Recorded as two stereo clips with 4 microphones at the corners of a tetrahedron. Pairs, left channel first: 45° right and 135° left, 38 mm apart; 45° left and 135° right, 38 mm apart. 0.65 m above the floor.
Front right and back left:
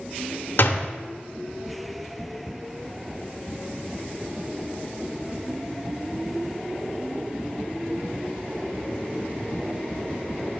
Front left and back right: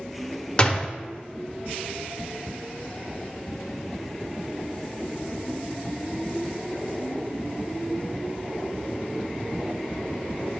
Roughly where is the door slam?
Ahead.